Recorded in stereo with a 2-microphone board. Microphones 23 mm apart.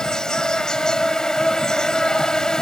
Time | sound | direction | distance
0.0 | an insect | 35° left (ahead or behind) | ?